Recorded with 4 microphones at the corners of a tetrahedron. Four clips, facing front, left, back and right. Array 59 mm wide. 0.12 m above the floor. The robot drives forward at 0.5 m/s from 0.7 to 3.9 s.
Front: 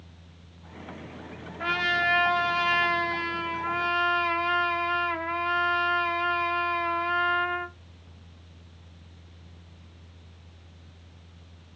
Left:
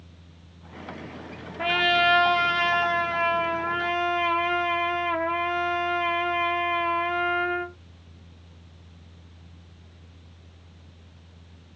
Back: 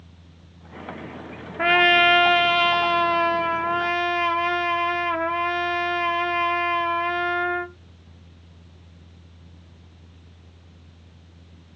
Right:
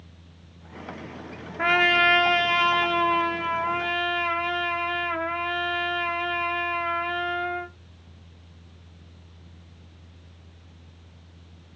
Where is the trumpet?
165° right, 0.6 m; by 7.7 s 175° right, 1.7 m.